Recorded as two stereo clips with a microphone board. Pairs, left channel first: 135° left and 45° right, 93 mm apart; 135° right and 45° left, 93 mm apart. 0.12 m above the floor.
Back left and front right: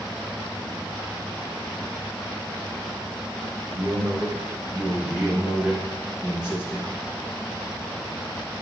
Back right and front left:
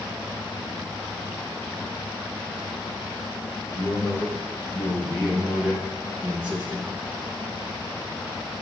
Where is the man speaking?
110° right, 2.5 m; by 6.9 s 25° left, 1.8 m.